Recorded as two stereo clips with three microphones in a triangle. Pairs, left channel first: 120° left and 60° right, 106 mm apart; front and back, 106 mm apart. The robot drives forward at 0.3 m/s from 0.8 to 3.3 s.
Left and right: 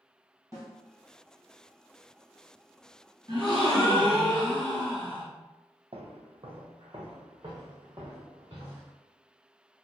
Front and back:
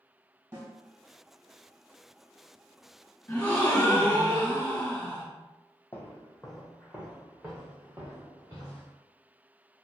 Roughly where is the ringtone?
No ringtone in this recording.